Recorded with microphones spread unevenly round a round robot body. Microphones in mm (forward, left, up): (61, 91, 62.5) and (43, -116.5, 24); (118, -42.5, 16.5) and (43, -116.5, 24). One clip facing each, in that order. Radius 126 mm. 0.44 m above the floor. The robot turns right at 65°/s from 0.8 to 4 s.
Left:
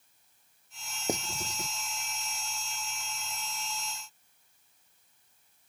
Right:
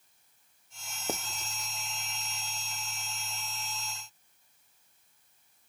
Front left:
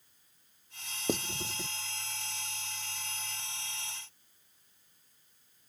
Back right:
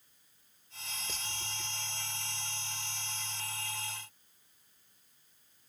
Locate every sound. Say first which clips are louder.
1.1 s writing: left 4 dB, front left 14 dB; 10° left; by 1.7 s 50° left